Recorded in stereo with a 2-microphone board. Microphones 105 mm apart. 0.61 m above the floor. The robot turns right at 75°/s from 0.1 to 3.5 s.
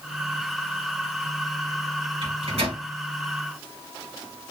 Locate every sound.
2.2 s a microwave: 50° right (ahead or behind), 1.9 m; by 2.8 s 75° right (ahead or behind), 1.9 m